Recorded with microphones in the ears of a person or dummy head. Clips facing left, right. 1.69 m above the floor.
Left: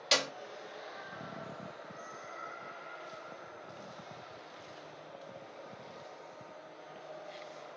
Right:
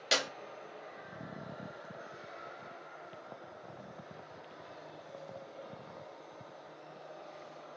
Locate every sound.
0.1 s a clap: 10° right (ahead or behind), 0.7 m